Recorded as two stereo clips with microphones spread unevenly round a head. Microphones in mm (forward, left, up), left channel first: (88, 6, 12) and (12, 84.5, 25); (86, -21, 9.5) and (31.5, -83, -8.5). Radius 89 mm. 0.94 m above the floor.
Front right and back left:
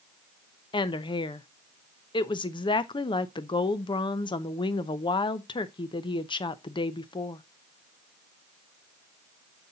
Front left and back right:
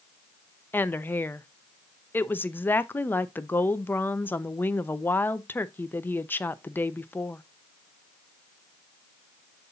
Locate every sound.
0.7 s a woman speaking: 25° right, 0.7 m